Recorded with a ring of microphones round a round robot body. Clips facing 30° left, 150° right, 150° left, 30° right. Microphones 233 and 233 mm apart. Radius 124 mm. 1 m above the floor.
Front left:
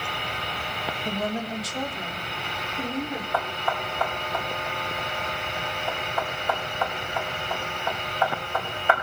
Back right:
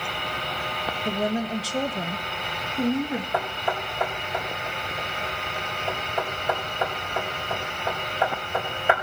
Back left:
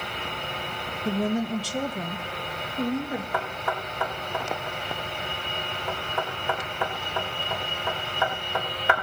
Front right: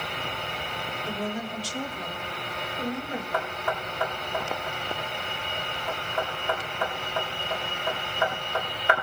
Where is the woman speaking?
130° left, 1.5 m; by 3.2 s 135° right, 1.8 m.